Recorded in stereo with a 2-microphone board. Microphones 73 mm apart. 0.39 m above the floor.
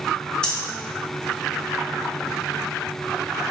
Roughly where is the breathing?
Centre.